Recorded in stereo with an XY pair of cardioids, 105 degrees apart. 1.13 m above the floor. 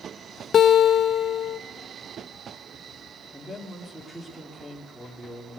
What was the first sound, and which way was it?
A guitar, 50° left.